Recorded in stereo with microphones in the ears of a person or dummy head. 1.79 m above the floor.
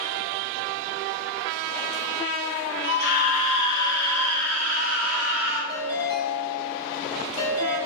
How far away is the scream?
About 1.5 m.